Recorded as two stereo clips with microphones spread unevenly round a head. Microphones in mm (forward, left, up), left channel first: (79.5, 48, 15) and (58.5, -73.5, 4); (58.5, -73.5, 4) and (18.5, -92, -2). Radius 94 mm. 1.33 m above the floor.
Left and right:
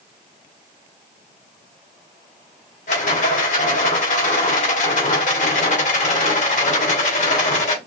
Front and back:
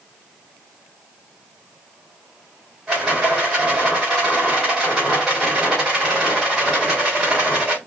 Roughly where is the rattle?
Behind left.